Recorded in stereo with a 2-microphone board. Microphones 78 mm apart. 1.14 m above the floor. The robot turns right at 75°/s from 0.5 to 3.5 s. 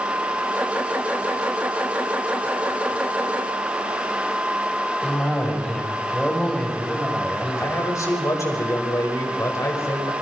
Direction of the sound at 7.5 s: 40° left (ahead or behind).